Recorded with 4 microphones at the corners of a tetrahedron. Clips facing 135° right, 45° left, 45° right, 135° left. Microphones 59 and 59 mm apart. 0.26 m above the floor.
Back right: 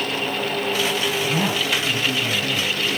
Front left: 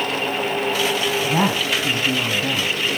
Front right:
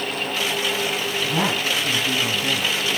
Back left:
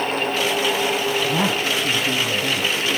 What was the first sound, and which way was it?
A woman speaking, 55° left.